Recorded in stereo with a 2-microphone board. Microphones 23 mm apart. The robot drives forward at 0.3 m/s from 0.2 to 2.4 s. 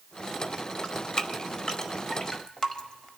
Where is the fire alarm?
No fire alarm in this recording.